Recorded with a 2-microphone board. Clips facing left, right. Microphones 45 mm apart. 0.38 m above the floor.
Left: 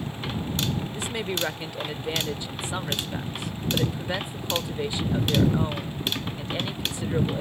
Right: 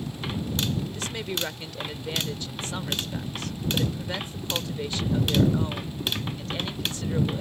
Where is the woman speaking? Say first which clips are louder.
Left 2 dB; 20° left (ahead or behind).